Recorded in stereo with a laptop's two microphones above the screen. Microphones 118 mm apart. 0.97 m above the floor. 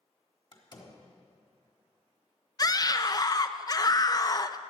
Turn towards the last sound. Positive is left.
turn(degrees=35)  # may be behind; listen again after turning